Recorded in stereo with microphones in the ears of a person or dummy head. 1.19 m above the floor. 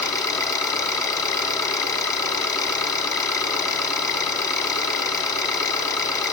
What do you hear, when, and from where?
0.0 s an engine running: 20° left (ahead or behind), 1.4 m